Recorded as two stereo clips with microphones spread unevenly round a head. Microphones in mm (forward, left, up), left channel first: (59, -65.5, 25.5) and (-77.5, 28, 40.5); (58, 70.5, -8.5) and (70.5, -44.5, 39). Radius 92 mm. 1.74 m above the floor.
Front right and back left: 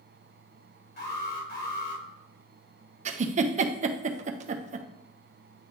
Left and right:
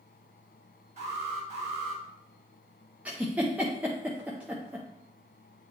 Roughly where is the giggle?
Behind.